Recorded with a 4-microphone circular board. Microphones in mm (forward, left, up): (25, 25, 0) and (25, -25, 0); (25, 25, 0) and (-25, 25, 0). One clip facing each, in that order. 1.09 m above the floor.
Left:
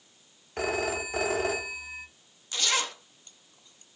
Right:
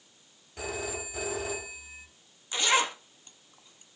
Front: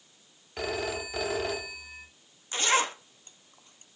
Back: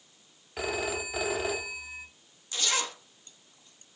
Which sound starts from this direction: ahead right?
A zipper, at 2.5 s.